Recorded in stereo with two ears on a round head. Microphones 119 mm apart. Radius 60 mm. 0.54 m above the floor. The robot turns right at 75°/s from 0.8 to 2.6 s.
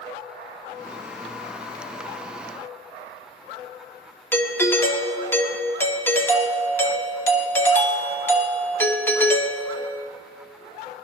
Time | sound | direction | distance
4.3 | a doorbell | 15° left (ahead or behind) | 1.1 m